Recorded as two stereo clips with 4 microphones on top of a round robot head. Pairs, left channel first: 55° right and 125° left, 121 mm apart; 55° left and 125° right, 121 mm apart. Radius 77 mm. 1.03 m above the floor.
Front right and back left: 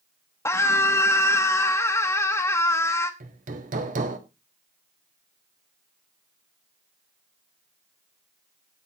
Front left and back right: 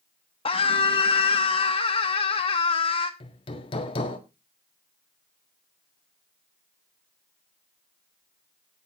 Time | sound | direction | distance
0.5 | a scream | 15° left | 1.1 m
3.2 | hammering | 105° left | 1.6 m